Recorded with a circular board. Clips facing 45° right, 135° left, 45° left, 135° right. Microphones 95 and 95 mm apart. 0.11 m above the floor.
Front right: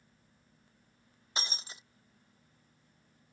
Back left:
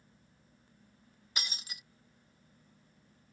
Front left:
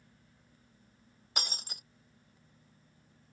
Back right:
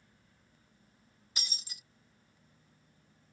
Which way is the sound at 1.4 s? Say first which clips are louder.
Front right 3 dB, front left 9 dB; 15° left.